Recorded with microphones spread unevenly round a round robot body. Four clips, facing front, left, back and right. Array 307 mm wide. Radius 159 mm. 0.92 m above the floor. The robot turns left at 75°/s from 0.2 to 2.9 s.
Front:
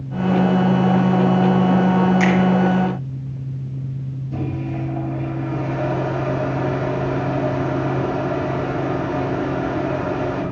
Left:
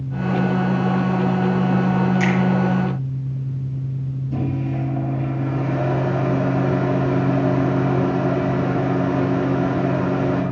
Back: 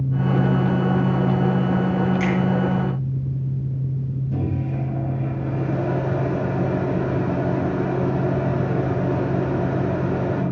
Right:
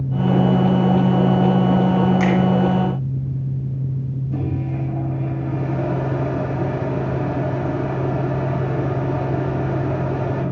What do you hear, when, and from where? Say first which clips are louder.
2.2 s a finger snap: right 2 dB, front 5 dB; 50° right, 2.5 m; by 2.3 s 60° right, 2.5 m
4.3 s a microwave: left 2 dB, front 2 dB; 155° left, 3.5 m